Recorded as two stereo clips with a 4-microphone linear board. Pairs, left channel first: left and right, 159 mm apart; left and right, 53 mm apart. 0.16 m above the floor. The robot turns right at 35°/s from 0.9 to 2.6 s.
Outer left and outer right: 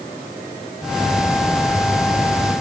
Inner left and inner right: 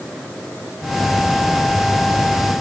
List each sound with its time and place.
Only background noise.